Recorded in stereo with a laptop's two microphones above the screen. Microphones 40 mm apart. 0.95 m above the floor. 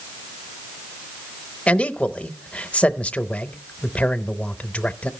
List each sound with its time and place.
1.7 s a man speaking: 35° left (ahead or behind), 0.7 m